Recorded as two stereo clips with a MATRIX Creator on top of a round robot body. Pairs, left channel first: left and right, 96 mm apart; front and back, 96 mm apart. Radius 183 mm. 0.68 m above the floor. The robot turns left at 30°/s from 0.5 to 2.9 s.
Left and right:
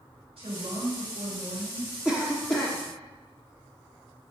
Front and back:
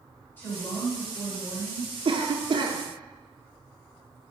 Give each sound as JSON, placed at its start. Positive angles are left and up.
{"t": 0.4, "sound": "a woman speaking", "azimuth_deg": -70, "distance_m": 3.0}
{"t": 2.0, "sound": "a cough", "azimuth_deg": -170, "distance_m": 0.8}